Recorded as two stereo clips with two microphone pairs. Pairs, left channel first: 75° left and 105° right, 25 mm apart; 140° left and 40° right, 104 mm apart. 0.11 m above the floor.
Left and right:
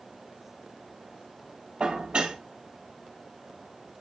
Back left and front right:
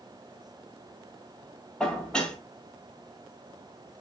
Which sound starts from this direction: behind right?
Dishes clattering, at 1.8 s.